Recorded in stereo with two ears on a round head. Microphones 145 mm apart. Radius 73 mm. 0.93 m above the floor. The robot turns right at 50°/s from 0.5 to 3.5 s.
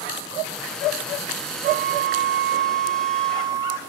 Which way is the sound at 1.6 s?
120° right.